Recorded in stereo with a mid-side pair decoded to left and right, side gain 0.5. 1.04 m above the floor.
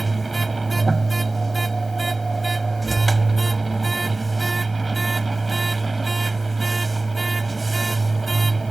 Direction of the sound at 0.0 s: 20° right.